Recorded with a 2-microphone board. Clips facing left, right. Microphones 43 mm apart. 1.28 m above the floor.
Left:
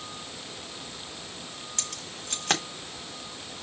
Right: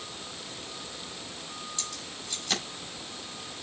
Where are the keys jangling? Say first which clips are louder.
Even; 60° left (ahead or behind), 3 m.